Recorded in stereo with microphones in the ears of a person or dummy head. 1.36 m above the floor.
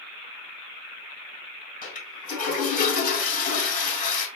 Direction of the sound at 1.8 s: 55° left (ahead or behind).